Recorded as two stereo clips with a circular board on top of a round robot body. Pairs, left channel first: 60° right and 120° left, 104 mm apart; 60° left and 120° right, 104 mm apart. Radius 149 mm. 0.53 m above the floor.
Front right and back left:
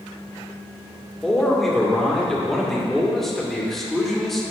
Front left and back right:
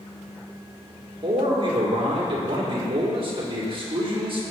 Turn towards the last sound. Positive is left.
turn(degrees=-150)